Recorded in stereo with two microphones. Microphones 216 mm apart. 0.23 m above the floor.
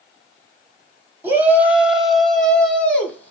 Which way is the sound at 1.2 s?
10° right (ahead or behind).